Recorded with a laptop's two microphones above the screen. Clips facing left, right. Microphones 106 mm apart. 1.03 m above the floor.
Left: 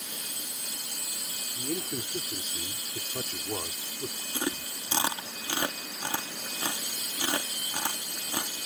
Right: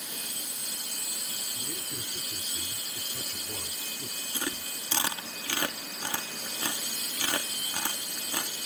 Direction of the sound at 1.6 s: 50° left (ahead or behind).